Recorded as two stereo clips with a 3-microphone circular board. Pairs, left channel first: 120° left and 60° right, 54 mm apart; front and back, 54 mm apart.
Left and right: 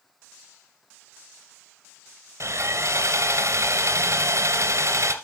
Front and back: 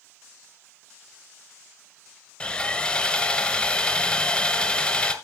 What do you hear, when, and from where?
2.4 s sawing: 65° right, 1.6 m